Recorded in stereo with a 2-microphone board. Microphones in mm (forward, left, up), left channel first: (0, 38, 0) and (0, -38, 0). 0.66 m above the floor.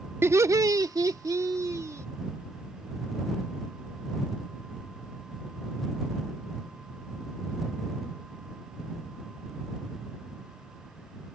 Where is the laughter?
35° right (ahead or behind); by 2.1 s 45° right (ahead or behind).